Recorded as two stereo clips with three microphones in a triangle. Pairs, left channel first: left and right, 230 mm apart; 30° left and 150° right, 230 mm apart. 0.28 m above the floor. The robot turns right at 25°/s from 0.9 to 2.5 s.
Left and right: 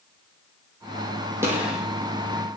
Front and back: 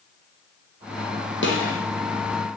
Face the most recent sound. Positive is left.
turn(degrees=15)